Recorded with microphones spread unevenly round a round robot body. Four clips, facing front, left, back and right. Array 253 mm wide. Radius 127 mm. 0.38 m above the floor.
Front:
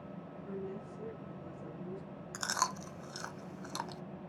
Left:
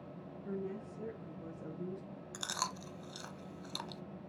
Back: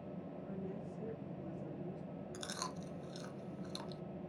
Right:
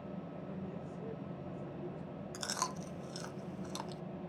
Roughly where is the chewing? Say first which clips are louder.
Right 1 dB, front 12 dB; ahead.